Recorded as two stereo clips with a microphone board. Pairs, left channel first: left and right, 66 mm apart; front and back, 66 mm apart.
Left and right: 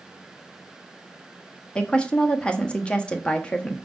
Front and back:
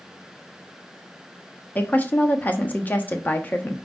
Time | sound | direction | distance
1.8 | a woman speaking | 35° left | 1.0 m